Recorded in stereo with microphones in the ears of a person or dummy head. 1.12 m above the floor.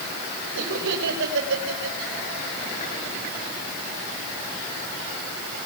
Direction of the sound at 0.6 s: 65° right (ahead or behind).